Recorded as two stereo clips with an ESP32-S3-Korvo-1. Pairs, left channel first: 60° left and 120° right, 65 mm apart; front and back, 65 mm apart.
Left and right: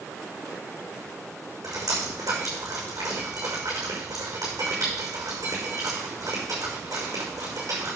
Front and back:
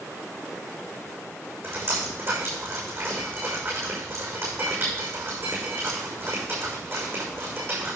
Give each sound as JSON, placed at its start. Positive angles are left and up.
{"t": 1.6, "sound": "dripping", "azimuth_deg": -135, "distance_m": 6.0}